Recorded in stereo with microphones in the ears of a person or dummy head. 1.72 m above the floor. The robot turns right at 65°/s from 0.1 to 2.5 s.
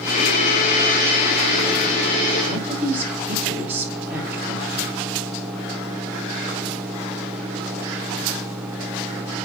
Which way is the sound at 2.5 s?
10° right (ahead or behind).